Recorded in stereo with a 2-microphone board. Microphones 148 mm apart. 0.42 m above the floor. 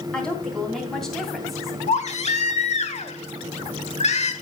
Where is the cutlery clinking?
No cutlery clinking in this recording.